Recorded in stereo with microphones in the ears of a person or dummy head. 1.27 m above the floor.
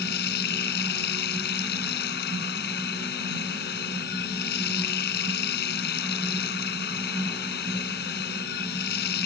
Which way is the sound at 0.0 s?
55° left (ahead or behind).